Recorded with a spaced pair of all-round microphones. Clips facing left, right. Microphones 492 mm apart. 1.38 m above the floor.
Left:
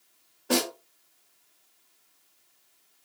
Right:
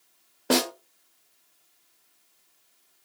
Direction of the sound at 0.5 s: 80° right.